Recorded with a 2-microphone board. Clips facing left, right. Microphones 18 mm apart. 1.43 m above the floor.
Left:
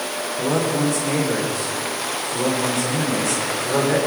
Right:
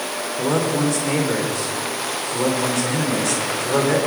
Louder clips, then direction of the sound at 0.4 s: Right 1 dB; 45° right (ahead or behind).